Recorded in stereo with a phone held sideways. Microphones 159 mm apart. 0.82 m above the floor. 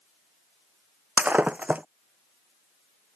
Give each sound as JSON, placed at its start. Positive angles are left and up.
{"t": 1.2, "sound": "breaking glass", "side_deg": -10}